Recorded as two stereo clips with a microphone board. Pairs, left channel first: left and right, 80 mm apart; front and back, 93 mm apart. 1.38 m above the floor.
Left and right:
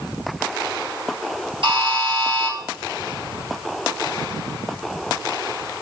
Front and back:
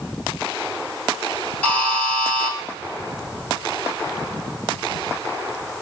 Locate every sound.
1.6 s a buzzer: 75° right, 1.6 m